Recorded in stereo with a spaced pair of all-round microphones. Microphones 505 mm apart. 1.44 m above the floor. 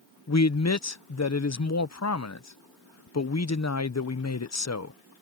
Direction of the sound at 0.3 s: 35° left (ahead or behind).